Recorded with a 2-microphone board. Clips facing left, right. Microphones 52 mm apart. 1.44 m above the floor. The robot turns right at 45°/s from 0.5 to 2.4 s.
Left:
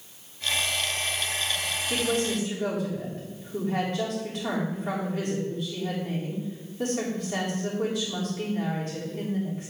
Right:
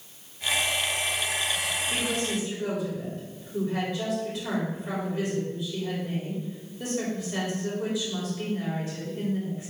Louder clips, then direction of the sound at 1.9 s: Left 5 dB; 80° left.